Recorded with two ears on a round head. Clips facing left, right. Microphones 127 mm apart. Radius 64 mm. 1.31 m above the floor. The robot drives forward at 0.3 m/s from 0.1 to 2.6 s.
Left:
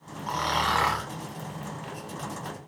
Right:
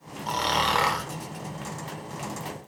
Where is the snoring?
35° right (ahead or behind), 0.6 m; by 1.1 s 25° right (ahead or behind), 0.8 m.